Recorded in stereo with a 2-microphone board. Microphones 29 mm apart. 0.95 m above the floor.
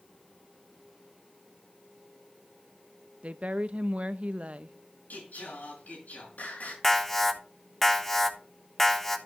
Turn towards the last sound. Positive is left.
turn(degrees=10)  # may be behind; listen again after turning